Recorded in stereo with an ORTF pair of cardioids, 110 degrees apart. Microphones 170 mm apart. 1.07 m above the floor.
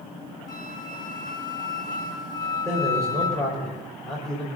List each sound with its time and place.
0.5 s a flute: 25° left, 3 m
2.6 s a man speaking: 5° left, 5 m